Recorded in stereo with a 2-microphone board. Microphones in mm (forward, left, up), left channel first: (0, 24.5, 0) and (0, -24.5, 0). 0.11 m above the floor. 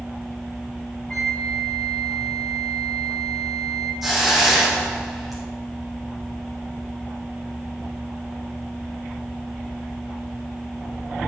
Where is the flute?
15° left (ahead or behind), 1.9 m.